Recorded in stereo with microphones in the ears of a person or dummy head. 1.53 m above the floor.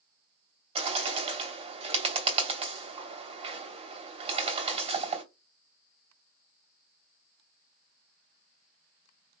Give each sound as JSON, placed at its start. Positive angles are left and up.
{"t": 0.8, "sound": "a bird", "side_deg": -35, "distance_m": 3.0}